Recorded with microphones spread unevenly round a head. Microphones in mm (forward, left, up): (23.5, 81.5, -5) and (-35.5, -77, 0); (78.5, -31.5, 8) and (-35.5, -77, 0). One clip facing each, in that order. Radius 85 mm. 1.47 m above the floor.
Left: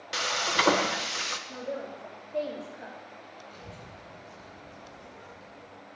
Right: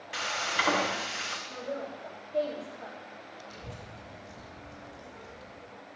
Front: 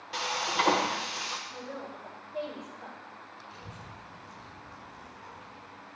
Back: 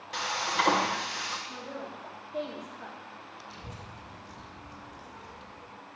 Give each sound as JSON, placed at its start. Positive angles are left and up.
{"t": 0.1, "sound": "frying", "azimuth_deg": 110, "distance_m": 1.1}
{"t": 1.5, "sound": "a woman speaking", "azimuth_deg": 145, "distance_m": 3.5}
{"t": 3.5, "sound": "a child speaking", "azimuth_deg": -165, "distance_m": 5.0}